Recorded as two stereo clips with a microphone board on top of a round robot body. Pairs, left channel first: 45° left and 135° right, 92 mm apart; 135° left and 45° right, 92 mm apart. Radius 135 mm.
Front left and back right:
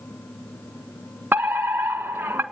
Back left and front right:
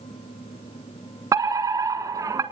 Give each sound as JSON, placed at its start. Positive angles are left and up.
{"t": 1.3, "sound": "a fire alarm", "azimuth_deg": -70, "distance_m": 1.6}